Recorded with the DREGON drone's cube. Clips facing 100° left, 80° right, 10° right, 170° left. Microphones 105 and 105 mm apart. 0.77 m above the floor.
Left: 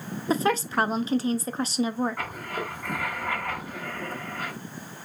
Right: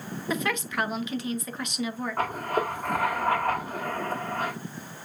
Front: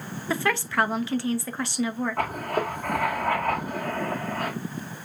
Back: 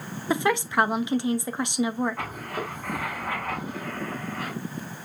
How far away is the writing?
About 1.6 m.